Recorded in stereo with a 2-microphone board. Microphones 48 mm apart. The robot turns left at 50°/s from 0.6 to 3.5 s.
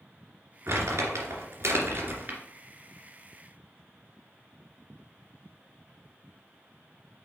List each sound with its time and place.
0.7 s crumpling: 55° right (ahead or behind), 2 m; by 2.4 s 35° right (ahead or behind), 2 m